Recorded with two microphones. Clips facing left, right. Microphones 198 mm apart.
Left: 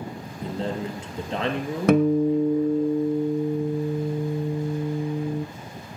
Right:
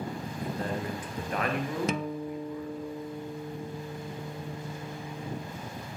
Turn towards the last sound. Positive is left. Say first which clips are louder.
# left 14 dB
turn(degrees=60)  # may be behind; listen again after turning